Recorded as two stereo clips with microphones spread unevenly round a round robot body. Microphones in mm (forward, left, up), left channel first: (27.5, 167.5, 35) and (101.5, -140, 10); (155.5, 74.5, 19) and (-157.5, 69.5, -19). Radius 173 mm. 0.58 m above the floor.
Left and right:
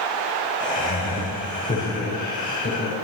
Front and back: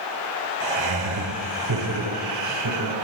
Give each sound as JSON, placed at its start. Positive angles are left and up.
{"t": 0.6, "sound": "laughter", "azimuth_deg": 170, "distance_m": 2.0}